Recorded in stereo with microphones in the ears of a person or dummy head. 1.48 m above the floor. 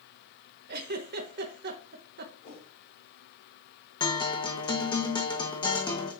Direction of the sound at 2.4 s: 45° left (ahead or behind).